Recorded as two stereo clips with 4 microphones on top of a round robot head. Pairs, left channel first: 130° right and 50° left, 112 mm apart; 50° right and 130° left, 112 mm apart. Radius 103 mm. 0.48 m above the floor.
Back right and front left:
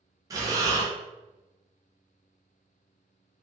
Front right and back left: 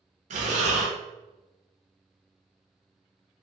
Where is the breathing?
110° left, 0.6 m.